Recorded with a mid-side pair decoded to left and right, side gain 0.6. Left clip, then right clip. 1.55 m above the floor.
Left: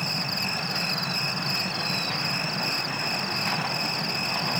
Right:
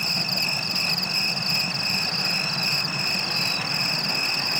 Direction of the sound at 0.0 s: 30° right.